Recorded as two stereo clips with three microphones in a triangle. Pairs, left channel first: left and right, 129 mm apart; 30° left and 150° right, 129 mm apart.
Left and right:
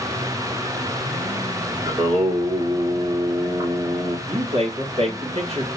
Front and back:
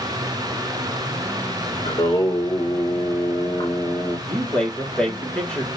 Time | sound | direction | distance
1.9 | singing | 35° right | 3 m
4.3 | a man speaking | 50° right | 2.5 m